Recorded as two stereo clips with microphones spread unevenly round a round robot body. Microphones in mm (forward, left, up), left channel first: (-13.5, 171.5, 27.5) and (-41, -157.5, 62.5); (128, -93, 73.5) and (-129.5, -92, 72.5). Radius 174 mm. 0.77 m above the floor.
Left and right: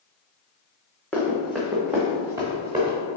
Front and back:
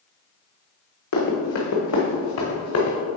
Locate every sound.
1.1 s running footsteps: 5° right, 2 m; by 3.0 s 20° right, 3 m